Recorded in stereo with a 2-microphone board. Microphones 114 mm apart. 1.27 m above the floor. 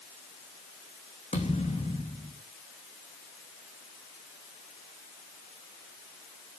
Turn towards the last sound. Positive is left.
turn(degrees=70)  # may be behind; listen again after turning